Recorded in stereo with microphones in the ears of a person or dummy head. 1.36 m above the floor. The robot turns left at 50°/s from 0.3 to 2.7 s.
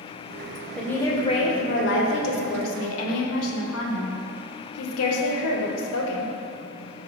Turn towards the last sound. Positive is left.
turn(degrees=75)